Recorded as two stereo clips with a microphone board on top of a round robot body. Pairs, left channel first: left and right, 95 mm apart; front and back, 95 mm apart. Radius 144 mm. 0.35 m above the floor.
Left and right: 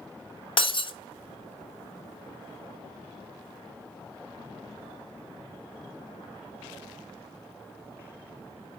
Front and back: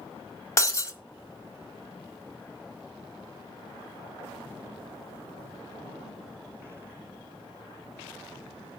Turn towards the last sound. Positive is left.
turn(degrees=60)